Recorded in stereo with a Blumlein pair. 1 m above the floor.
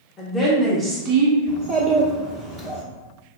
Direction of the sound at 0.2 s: 20° left.